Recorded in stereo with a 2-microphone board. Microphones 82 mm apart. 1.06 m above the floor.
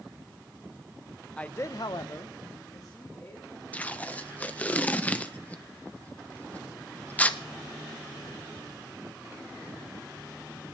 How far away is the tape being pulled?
About 0.8 m.